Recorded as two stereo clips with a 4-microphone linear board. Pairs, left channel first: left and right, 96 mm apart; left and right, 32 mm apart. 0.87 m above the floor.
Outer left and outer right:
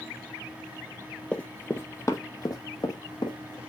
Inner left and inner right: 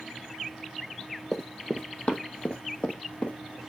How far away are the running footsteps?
About 1.0 m.